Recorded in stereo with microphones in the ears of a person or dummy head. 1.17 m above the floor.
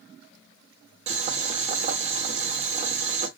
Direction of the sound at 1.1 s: 35° right (ahead or behind).